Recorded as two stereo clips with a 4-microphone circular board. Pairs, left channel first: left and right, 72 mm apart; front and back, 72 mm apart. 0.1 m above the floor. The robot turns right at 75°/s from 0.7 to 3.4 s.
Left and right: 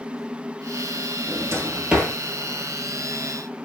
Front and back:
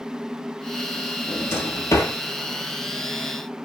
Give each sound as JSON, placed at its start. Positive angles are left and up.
{"t": 1.3, "sound": "a drawer", "azimuth_deg": -65, "distance_m": 0.8}